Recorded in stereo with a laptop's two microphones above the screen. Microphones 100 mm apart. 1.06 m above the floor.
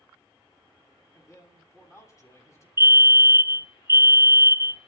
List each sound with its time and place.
1.1 s a man speaking: 30° left (ahead or behind), 8.5 m
2.8 s a fire alarm: 25° right (ahead or behind), 1.3 m